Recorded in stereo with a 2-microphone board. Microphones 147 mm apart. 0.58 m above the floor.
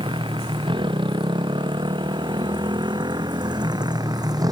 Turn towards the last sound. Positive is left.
turn(degrees=-25)  # may be behind; listen again after turning